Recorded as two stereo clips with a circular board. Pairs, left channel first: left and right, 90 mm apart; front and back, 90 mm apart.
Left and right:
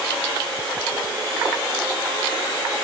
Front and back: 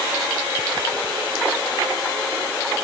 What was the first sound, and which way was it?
Only background noise.